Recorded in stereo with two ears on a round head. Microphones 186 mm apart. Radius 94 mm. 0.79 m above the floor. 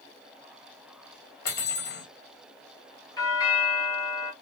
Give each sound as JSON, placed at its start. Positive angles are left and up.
{"t": 1.4, "sound": "cutlery clinking", "side_deg": 55, "distance_m": 1.3}
{"t": 3.2, "sound": "a doorbell", "side_deg": 20, "distance_m": 1.8}